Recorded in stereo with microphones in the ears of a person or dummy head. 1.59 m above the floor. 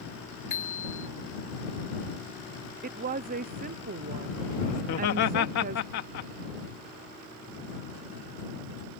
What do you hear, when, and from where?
0.5 s a bicycle bell: 45° left (ahead or behind)
2.8 s a woman speaking: 45° right (ahead or behind)
4.8 s laughter: 65° left (ahead or behind)